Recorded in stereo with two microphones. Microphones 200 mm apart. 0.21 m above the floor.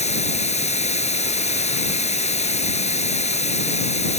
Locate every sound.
0.0 s running water: 35° left (ahead or behind)